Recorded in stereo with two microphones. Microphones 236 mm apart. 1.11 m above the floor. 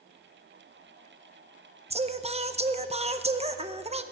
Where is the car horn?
I don't hear a car horn.